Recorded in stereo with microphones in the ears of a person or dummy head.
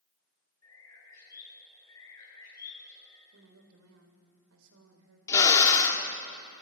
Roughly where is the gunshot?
I don't hear a gunshot.